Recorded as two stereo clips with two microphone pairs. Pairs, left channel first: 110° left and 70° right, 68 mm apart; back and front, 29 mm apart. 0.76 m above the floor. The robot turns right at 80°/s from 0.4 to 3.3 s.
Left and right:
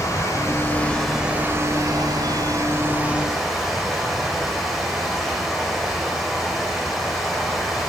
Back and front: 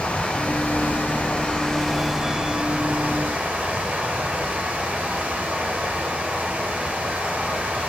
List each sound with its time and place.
0.0 s running water: 145° left, 2.0 m; by 7.9 s 15° left, 2.0 m